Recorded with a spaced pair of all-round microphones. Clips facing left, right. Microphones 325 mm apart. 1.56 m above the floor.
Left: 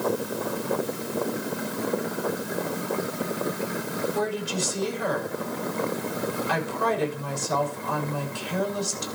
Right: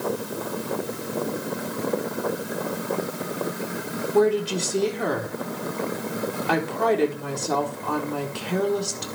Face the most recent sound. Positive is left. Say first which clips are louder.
# right 13 dB
turn(degrees=-70)  # may be behind; listen again after turning